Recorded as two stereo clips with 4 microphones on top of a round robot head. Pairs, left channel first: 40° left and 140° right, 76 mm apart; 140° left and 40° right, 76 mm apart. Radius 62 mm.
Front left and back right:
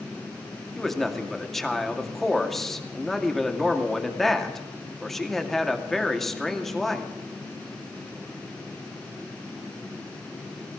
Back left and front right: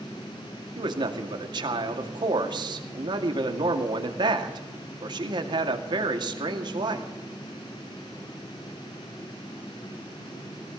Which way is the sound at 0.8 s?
45° right.